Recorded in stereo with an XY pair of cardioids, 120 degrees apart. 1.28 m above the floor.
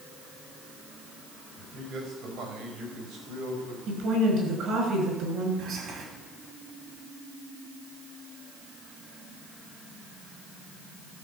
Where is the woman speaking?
65° right, 6 m.